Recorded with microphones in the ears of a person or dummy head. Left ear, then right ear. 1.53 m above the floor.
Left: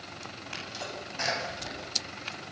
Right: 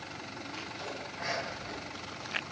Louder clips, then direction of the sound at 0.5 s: Left 4 dB; 80° left.